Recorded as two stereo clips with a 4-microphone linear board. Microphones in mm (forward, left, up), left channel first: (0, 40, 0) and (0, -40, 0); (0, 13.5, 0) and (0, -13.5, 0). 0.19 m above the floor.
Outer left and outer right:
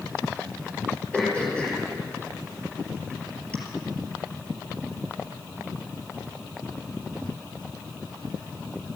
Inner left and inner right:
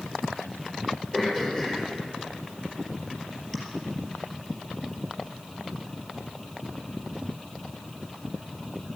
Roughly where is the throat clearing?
Centre.